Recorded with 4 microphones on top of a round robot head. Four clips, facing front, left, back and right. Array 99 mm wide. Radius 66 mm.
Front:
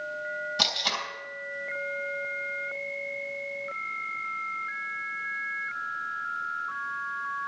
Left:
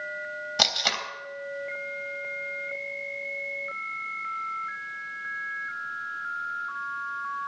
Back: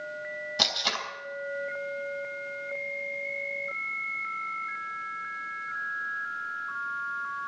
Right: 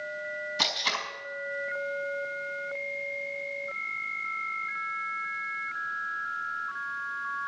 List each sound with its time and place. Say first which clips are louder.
0.6 s tape being pulled: left 4 dB, even; 100° left, 3 m